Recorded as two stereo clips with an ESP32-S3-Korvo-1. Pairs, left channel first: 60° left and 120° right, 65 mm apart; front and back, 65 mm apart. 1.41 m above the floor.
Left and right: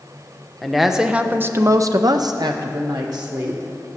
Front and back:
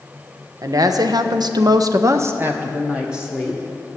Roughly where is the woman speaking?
Behind left.